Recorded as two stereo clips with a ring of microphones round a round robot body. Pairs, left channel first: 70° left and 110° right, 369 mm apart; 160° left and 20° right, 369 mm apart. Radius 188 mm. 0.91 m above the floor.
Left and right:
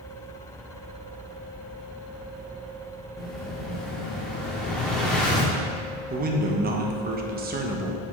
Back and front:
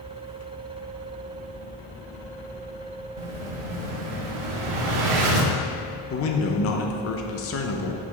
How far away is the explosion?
About 0.9 m.